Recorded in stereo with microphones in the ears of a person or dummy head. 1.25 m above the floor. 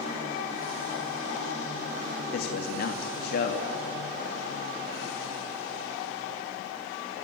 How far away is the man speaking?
About 2 m.